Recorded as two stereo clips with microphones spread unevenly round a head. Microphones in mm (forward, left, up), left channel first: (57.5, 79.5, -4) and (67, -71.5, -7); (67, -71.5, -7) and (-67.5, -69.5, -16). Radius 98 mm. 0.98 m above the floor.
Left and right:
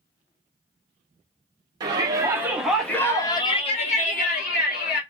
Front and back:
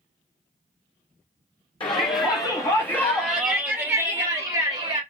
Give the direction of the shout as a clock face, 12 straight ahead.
1 o'clock.